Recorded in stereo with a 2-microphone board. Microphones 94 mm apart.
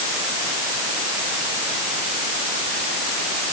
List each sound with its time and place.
Only background noise.